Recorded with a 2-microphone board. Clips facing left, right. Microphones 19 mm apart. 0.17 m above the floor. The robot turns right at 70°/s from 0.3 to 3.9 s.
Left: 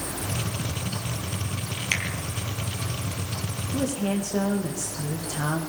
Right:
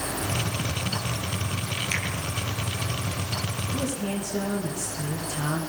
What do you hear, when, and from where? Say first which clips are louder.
1.9 s a finger snap: left 4 dB; 30° left (ahead or behind), 5 m; by 2.0 s 35° left (ahead or behind), 5 m
3.7 s a woman speaking: left 5 dB; 50° left (ahead or behind), 9.5 m; by 5.6 s 40° left (ahead or behind), 9.5 m